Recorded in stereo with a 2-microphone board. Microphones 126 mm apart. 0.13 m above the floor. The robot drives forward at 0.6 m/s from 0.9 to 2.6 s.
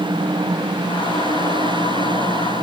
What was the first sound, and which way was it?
Only background noise.